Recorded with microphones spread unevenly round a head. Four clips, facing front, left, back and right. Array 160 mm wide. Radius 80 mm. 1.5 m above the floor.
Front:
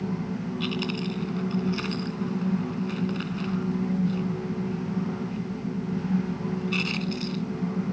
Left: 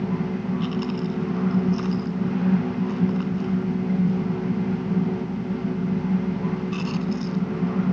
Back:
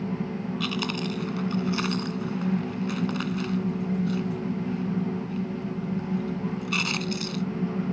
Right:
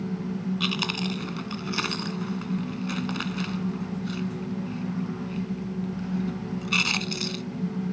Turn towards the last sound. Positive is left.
turn(degrees=-95)